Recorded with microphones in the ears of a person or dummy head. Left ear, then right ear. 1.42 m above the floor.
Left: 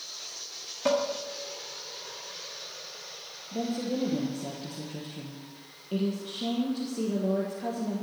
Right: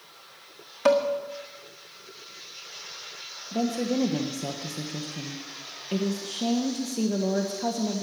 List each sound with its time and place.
0.8 s dishes clattering: 25° right (ahead or behind), 1.7 m
3.5 s a woman speaking: 40° right (ahead or behind), 1.4 m